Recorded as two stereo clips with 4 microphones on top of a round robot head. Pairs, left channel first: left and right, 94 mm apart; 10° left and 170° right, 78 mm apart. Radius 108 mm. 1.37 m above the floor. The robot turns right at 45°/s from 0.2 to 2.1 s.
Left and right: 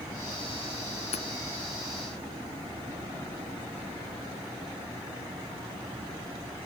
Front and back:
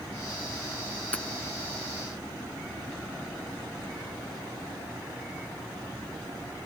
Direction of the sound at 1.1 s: 85° left.